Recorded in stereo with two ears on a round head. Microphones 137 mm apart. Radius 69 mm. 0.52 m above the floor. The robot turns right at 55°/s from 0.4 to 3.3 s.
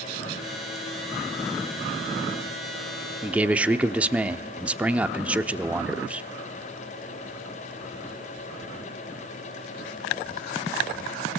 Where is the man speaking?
10° right (ahead or behind), 0.7 m.